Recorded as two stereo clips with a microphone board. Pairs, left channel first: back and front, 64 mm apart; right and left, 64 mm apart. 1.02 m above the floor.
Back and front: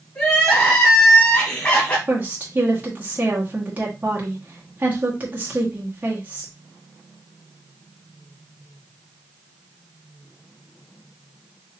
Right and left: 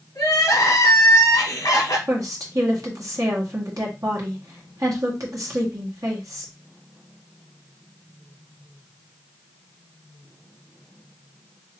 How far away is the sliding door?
No sliding door in this recording.